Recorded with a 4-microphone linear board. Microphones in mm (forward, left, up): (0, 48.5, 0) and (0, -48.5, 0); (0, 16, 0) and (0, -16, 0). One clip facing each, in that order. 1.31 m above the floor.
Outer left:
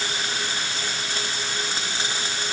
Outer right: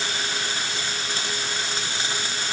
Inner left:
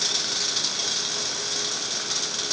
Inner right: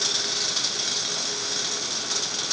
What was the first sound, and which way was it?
Only background noise.